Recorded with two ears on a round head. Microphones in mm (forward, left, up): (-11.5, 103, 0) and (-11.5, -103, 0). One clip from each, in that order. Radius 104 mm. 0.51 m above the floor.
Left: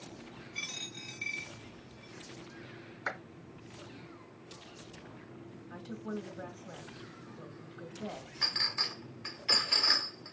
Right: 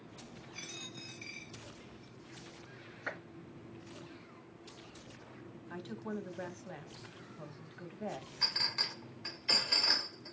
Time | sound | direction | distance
0.6 | a dropped coin | 30° left (ahead or behind) | 2.5 m
3.1 | a clap | 45° left (ahead or behind) | 4.5 m
5.7 | a woman speaking | 35° right (ahead or behind) | 1.1 m
8.4 | a clink | 5° left (ahead or behind) | 0.6 m